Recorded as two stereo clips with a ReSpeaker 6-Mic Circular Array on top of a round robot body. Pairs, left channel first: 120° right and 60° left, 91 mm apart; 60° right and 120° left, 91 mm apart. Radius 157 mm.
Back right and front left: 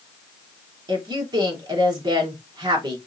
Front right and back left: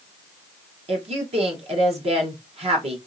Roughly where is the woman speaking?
Left.